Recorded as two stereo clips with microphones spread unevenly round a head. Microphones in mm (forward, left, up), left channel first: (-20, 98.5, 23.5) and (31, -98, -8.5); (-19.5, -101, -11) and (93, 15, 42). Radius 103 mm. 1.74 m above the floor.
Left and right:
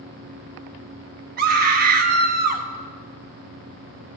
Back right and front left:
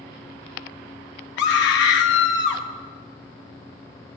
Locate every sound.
1.4 s a scream: 125° right, 1.0 m